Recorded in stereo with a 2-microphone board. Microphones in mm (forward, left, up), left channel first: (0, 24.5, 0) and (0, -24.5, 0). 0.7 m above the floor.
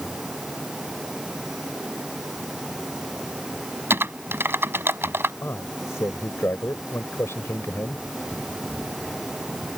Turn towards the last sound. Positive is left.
turn(degrees=65)  # may be behind; listen again after turning